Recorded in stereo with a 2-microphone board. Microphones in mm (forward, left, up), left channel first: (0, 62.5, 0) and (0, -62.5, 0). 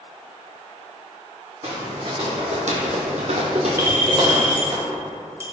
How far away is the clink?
About 0.8 m.